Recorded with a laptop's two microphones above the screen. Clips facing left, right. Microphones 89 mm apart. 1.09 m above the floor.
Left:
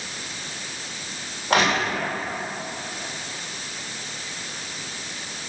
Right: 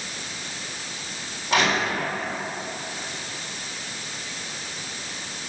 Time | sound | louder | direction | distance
1.5 | crushing | left 1 dB | 55° left (ahead or behind) | 2 m